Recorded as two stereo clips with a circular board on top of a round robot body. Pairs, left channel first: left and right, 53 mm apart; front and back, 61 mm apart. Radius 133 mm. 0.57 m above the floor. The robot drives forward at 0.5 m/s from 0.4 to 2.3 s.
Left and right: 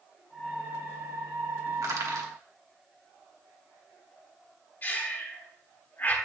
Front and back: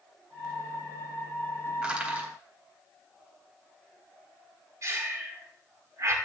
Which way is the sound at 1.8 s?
105° right.